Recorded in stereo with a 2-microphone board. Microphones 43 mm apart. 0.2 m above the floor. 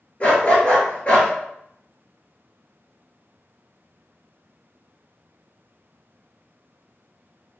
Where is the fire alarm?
I don't hear a fire alarm.